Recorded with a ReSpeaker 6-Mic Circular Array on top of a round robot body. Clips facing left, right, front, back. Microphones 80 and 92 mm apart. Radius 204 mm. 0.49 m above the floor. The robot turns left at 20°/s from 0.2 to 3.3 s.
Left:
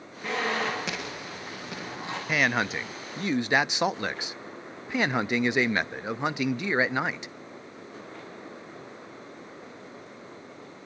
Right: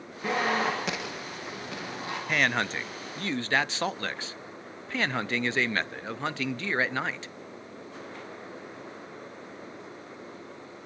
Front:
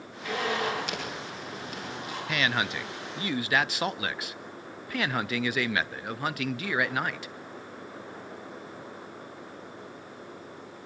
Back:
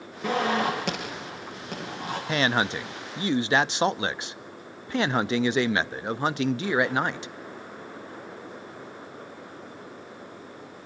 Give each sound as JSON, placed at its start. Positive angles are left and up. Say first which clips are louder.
{"t": 0.2, "sound": "a zipper", "louder": "right 2 dB, back 5 dB", "azimuth_deg": -165, "distance_m": 8.5}
{"t": 2.3, "sound": "a man speaking", "louder": "left 1 dB, back 4 dB", "azimuth_deg": 170, "distance_m": 0.7}